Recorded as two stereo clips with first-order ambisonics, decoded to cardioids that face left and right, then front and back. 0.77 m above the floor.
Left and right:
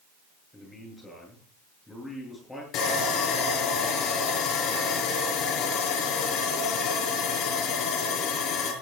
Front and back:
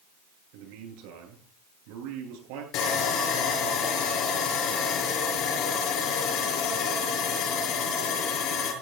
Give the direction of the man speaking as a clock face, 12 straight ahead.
6 o'clock.